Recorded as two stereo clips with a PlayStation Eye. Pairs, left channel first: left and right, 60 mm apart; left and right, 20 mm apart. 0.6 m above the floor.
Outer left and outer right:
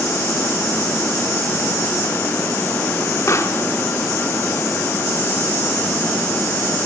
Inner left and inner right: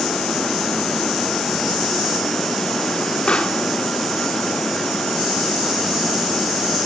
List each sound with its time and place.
3.3 s a pop: 50° left (ahead or behind), 0.8 m